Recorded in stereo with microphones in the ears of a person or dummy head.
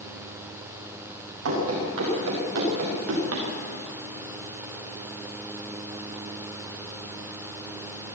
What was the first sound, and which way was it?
Running footsteps, 80° right.